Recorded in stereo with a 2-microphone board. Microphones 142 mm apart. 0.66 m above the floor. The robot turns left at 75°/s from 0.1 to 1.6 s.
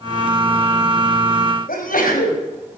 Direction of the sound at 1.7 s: 80° left.